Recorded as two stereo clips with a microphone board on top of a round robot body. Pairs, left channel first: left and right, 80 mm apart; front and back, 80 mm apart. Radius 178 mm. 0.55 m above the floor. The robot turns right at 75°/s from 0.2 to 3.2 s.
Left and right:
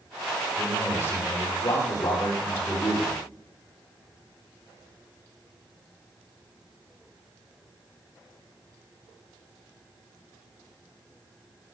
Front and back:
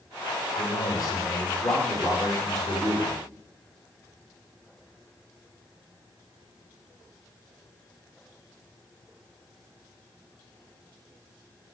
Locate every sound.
0.6 s a man speaking: straight ahead, 4 m; by 3.2 s 165° right, 4 m